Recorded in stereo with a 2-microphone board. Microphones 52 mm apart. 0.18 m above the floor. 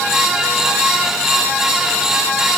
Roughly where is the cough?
No cough in this recording.